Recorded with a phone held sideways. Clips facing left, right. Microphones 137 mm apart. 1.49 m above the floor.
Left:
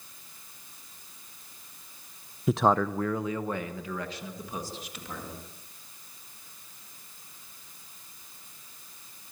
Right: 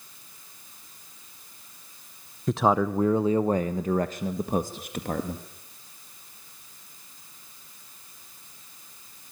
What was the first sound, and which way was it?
A man speaking, 5° left (ahead or behind).